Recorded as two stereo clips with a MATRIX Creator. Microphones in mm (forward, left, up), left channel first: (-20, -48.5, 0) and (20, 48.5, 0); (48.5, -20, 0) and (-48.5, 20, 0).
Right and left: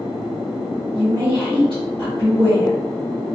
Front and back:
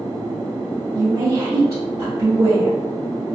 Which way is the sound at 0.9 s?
100° left.